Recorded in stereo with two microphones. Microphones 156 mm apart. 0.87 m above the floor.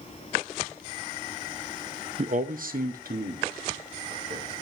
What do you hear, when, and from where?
2.2 s a man speaking: 45° right (ahead or behind), 0.5 m; by 4.5 s 75° right (ahead or behind), 2.5 m